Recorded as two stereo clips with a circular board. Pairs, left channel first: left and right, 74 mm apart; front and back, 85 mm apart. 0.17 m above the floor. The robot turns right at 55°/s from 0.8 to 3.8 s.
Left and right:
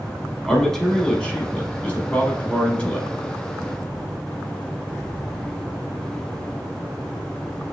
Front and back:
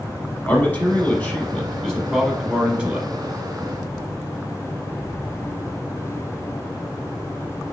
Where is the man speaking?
20° left, 1.0 m; by 3.1 s 145° left, 1.0 m.